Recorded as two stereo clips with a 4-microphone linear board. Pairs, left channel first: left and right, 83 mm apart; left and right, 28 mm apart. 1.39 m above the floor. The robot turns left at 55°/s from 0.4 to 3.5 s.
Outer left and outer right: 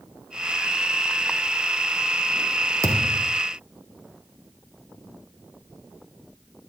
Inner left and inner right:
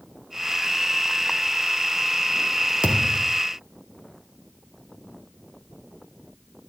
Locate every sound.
2.8 s a thud: 140° right, 3.5 m; by 3.4 s 170° right, 3.5 m